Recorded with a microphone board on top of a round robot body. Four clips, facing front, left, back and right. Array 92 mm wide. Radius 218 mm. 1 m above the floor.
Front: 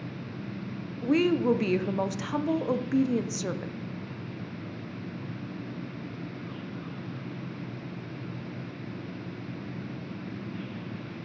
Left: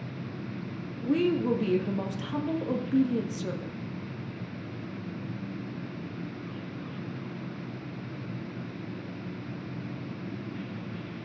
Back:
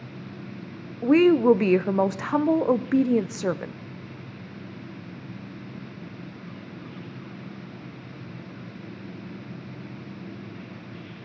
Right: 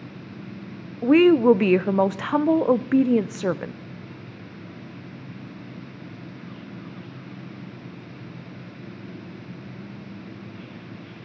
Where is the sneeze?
No sneeze in this recording.